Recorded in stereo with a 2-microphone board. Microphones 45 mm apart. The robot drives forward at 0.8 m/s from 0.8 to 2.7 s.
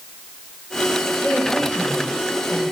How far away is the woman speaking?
About 3 m.